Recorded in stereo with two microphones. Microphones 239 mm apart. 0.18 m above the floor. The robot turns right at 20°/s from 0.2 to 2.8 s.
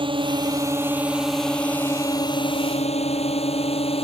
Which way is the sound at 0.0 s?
20° right (ahead or behind).